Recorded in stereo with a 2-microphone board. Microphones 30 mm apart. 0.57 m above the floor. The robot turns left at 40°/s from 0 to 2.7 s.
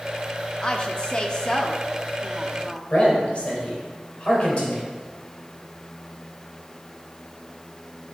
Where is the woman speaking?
30° left (ahead or behind), 0.7 m; by 2.8 s 5° left (ahead or behind), 0.7 m.